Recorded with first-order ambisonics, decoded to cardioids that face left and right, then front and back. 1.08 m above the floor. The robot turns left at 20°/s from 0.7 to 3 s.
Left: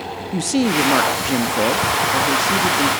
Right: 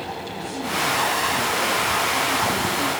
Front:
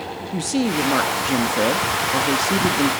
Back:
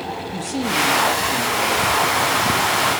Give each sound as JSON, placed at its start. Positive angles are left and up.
{"t": 0.3, "sound": "a woman speaking", "azimuth_deg": 65, "distance_m": 1.6}